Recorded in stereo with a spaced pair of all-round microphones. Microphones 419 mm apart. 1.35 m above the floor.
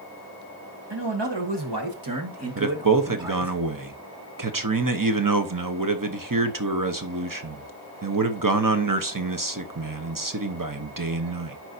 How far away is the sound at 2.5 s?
About 1.0 m.